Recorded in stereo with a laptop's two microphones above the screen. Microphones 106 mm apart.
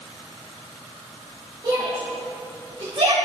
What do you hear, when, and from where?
1.6 s a shout: 50° right (ahead or behind), 4 m; by 3.1 s 60° right (ahead or behind), 3 m